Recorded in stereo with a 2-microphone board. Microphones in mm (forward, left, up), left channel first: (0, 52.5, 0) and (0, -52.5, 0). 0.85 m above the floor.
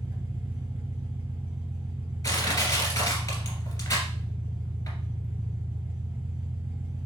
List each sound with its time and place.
0.0 s an engine running: 20° right (ahead or behind), 1.5 m
2.2 s crushing: 35° left (ahead or behind), 2 m